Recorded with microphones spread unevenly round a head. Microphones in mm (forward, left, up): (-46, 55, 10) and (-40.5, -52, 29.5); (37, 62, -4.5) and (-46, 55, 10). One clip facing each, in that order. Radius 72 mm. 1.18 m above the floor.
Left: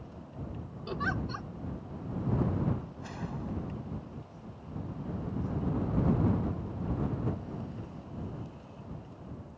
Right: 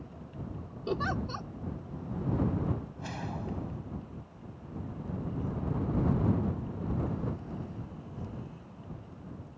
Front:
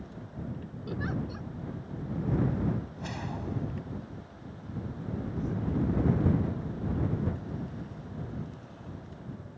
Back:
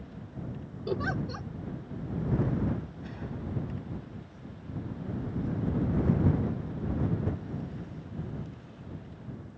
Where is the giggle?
140° right.